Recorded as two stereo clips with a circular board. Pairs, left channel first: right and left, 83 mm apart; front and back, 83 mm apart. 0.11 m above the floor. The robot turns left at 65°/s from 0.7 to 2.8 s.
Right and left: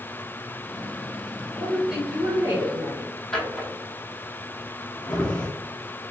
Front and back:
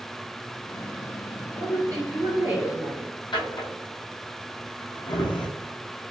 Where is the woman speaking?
165° right, 1.6 m; by 3.1 s 115° left, 1.6 m.